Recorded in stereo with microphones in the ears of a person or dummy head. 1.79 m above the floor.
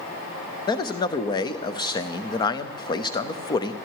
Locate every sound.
0.7 s a man speaking: 25° left (ahead or behind), 0.8 m